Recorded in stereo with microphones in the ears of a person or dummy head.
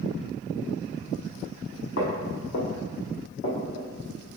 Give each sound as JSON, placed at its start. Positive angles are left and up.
{"t": 2.0, "sound": "footsteps", "side_deg": 55, "distance_m": 2.0}